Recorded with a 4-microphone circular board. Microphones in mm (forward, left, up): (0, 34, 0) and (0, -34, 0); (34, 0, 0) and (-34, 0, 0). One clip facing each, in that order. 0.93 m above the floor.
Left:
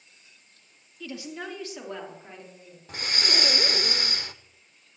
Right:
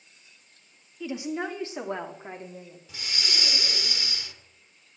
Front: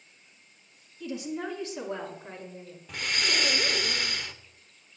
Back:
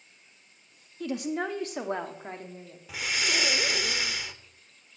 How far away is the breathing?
About 0.7 m.